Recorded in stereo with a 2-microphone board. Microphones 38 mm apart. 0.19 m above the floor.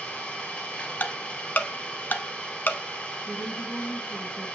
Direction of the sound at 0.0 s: 30° left (ahead or behind).